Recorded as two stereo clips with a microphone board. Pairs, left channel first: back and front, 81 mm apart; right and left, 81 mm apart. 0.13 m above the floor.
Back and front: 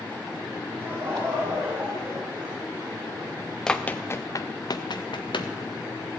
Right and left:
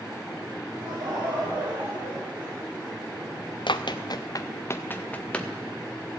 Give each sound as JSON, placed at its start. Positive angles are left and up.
{"t": 0.8, "sound": "laughter", "azimuth_deg": 60, "distance_m": 8.0}
{"t": 3.7, "sound": "running footsteps", "azimuth_deg": -100, "distance_m": 0.9}